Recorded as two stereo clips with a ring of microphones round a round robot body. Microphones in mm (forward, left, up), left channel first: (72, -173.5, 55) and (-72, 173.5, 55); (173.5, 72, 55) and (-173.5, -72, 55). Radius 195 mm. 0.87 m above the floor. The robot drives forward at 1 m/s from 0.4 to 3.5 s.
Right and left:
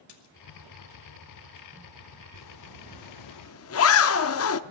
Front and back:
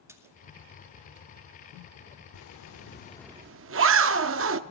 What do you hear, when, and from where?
0.1 s a splash: 75° right, 2 m
2.3 s a zipper: 20° right, 1.1 m; by 4.6 s 110° right, 0.5 m